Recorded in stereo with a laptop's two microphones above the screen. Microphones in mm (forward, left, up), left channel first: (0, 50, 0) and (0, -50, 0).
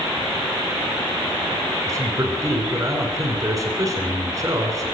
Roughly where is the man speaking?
Right.